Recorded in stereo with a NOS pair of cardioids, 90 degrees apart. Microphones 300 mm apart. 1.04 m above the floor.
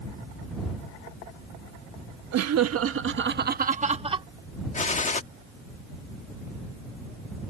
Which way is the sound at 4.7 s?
25° left.